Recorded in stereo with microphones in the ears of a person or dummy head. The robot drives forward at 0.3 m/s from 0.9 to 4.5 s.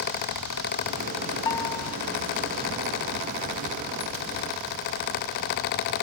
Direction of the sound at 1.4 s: 20° left (ahead or behind).